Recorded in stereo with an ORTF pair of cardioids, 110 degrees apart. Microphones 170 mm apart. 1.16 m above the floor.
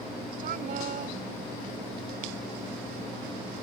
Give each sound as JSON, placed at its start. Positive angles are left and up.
{"t": 0.4, "sound": "a woman speaking", "azimuth_deg": -55}